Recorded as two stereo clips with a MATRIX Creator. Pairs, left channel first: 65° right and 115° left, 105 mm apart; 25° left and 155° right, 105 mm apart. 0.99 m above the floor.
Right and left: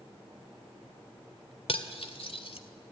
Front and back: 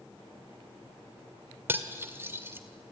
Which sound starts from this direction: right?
Cutlery clinking, at 1.7 s.